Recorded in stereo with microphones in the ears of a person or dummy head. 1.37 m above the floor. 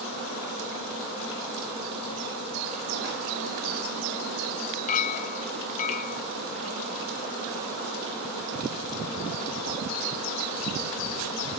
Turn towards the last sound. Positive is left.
turn(degrees=45)  # may be behind; listen again after turning